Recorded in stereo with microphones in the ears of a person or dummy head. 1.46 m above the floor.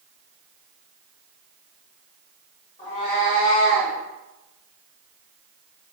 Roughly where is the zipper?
No zipper in this recording.